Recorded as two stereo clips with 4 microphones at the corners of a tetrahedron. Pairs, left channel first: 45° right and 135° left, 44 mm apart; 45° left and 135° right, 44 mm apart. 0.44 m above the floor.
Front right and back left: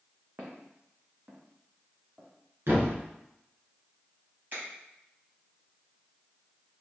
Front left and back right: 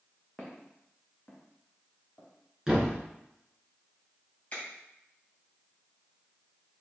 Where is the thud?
150° left, 1.9 m.